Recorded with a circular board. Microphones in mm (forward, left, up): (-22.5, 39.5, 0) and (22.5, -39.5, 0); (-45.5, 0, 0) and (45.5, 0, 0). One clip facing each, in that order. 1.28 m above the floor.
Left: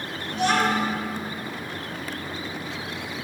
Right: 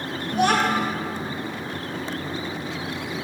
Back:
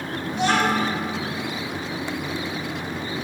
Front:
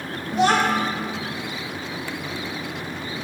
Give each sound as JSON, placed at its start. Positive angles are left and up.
{"t": 0.3, "sound": "a child speaking", "azimuth_deg": -35, "distance_m": 0.5}